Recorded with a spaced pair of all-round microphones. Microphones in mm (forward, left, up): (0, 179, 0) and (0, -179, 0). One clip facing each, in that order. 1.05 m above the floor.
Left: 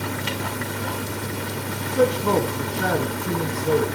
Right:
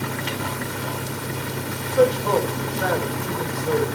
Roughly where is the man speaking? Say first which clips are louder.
Right 2 dB; left.